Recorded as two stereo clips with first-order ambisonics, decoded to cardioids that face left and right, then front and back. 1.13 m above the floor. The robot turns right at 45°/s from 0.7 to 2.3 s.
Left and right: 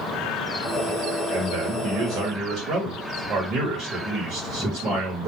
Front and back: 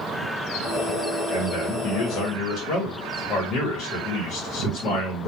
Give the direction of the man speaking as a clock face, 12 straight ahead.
3 o'clock.